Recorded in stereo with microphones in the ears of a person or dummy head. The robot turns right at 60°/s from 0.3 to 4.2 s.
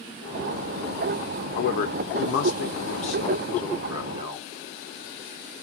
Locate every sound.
1.5 s a man speaking: 50° left, 0.8 m; by 4.5 s 150° right, 0.8 m